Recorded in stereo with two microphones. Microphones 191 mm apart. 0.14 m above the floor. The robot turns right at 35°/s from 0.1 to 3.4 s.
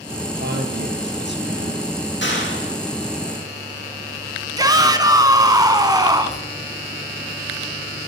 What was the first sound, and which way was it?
A man speaking, 115° right.